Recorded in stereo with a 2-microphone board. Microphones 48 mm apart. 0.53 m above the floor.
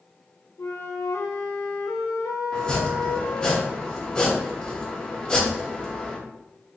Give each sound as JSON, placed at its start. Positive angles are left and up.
{"t": 0.6, "sound": "a flute", "side_deg": 85, "distance_m": 0.5}
{"t": 2.5, "sound": "chopping", "side_deg": 20, "distance_m": 0.9}